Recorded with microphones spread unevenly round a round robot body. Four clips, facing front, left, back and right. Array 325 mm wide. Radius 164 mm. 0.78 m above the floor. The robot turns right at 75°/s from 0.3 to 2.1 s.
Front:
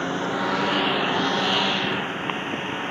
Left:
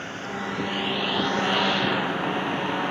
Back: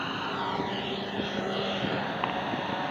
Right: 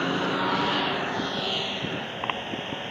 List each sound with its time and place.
0.0 s a lawn mower: 50° right; by 2.9 s 85° left